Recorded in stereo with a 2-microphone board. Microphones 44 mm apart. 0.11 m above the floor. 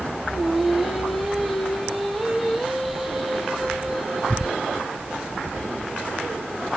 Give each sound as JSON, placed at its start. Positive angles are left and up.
{"t": 0.3, "sound": "singing", "side_deg": 0, "distance_m": 1.9}